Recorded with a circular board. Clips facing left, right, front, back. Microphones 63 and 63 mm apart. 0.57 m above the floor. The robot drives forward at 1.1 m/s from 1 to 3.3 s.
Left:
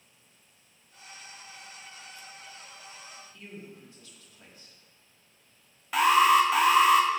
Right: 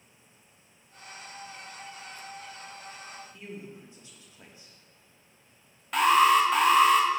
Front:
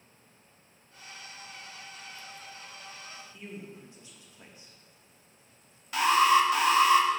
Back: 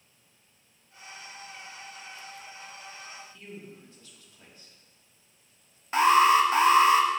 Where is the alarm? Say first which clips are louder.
Even, back 3 dB; 175° left, 0.7 m.